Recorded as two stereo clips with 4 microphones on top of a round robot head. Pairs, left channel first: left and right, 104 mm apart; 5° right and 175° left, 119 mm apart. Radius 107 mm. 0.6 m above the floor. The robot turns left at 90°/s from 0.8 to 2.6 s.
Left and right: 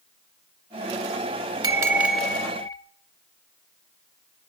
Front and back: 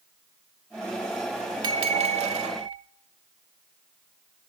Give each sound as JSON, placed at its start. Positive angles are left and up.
{"t": 1.6, "sound": "a bell", "azimuth_deg": -130, "distance_m": 0.8}